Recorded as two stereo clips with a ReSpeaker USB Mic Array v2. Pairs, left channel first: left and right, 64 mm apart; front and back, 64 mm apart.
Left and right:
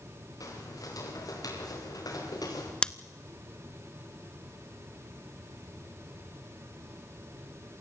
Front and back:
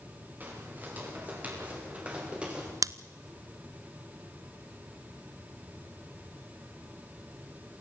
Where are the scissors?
165° left, 0.6 m.